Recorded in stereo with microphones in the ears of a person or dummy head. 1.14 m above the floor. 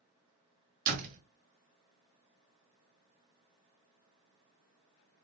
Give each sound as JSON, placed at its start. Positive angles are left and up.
{"t": 0.9, "sound": "a door slam", "side_deg": -50, "distance_m": 1.4}